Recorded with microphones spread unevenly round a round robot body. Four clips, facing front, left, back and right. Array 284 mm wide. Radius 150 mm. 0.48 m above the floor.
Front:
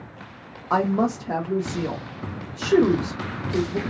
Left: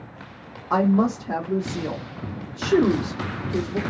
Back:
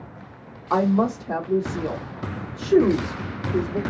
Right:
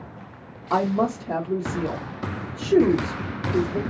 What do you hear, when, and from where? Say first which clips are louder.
0.7 s a woman speaking: left 2 dB, back 1 dB; 35° right, 1.0 m